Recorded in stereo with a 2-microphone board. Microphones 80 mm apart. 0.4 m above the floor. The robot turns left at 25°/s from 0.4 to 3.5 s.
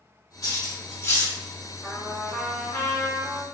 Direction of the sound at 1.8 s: 170° left.